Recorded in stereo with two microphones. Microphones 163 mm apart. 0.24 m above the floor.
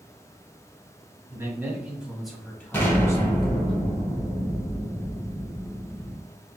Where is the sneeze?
I don't hear a sneeze.